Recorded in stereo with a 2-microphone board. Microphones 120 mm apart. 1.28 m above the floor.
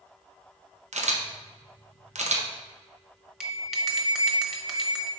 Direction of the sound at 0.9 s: 80° right.